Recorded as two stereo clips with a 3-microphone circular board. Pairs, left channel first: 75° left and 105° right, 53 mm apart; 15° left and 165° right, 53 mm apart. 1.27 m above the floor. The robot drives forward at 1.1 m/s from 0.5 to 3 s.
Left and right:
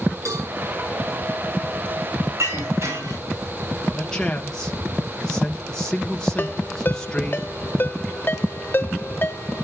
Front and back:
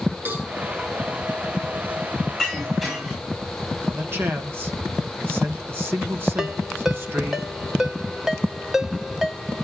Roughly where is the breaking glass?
Right.